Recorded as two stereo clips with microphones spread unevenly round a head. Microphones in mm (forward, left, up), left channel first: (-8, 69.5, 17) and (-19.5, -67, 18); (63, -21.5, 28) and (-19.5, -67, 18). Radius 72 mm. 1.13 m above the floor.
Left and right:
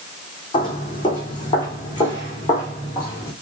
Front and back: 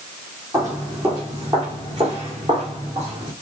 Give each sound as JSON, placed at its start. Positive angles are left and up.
{"t": 0.5, "sound": "footsteps", "azimuth_deg": 140, "distance_m": 2.5}